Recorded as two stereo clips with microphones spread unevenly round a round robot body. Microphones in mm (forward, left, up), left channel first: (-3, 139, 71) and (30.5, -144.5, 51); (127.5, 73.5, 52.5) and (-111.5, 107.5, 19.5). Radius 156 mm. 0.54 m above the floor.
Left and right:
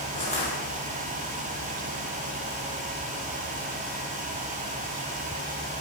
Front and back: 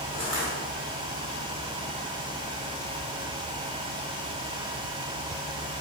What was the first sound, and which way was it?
Crushing, 30° left.